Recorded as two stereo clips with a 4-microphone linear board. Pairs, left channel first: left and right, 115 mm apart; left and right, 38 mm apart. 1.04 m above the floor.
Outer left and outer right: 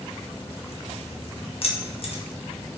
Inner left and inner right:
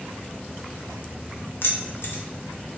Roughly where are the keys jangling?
Left.